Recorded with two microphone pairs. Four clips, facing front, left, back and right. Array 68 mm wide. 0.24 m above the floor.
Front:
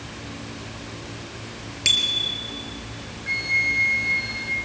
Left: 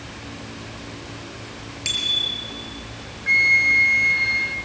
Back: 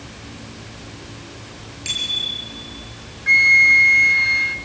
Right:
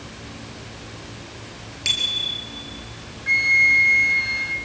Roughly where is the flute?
Behind.